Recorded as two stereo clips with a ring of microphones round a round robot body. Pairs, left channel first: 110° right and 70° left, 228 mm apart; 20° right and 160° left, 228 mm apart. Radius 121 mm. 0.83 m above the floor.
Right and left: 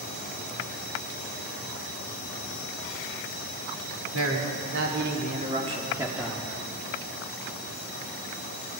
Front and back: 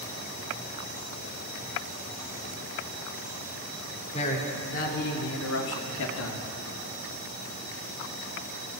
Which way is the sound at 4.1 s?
40° left.